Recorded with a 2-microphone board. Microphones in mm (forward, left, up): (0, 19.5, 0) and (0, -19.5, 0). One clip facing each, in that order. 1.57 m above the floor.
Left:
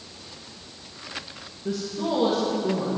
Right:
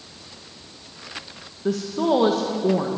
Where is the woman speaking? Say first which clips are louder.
Right 6 dB; 65° right (ahead or behind), 1.5 m.